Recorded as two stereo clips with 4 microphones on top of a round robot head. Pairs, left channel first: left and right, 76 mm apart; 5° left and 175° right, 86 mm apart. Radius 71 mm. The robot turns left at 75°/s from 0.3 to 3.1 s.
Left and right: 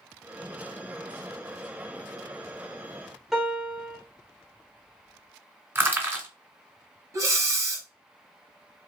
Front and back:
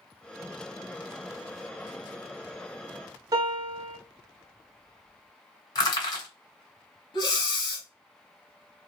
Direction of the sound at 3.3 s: 175° right.